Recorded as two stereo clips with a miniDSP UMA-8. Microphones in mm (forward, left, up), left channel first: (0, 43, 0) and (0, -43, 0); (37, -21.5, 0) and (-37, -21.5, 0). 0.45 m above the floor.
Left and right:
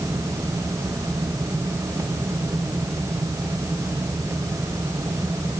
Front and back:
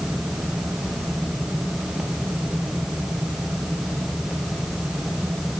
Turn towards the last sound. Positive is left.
No sound to turn to.